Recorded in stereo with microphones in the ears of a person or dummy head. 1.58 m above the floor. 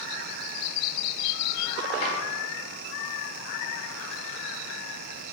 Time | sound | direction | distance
2.0 | a drawer | 35° left (ahead or behind) | 1.3 m